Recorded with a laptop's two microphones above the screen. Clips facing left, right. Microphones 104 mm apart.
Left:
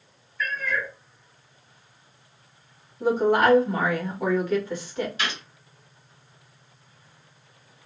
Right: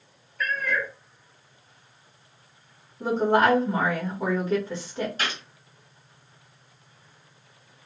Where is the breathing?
I don't hear breathing.